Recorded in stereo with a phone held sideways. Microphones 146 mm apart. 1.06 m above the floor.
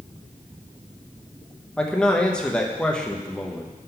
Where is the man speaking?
5° left (ahead or behind), 0.8 m.